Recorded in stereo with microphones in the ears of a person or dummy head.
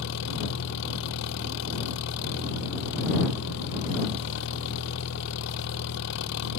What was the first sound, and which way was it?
An engine running, 65° left (ahead or behind).